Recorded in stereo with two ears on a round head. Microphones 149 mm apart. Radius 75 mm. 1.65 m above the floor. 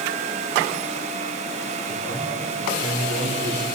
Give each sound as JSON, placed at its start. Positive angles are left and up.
{"t": 1.9, "sound": "a man speaking", "side_deg": -60, "distance_m": 4.5}